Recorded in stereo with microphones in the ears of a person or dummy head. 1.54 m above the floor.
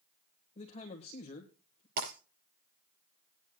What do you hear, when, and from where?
0.6 s a man speaking: 30° left (ahead or behind), 1.7 m
2.0 s breaking glass: 50° right (ahead or behind), 6 m